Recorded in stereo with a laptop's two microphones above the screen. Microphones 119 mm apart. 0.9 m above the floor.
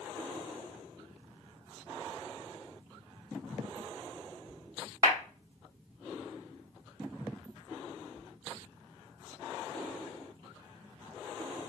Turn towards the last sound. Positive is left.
turn(degrees=-30)  # may be behind; listen again after turning